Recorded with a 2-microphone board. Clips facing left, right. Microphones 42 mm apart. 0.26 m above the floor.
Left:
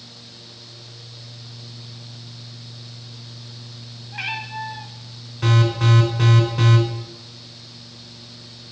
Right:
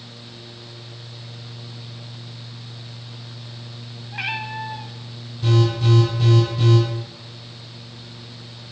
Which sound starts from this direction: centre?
A cat meowing, at 4.1 s.